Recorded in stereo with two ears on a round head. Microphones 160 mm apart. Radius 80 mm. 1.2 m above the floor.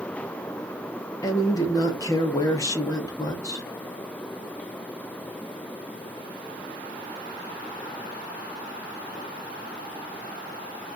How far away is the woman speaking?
About 0.8 m.